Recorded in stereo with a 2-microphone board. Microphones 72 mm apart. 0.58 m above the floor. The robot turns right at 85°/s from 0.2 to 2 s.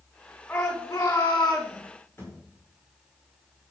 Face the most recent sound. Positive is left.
turn(degrees=25)  # may be behind; listen again after turning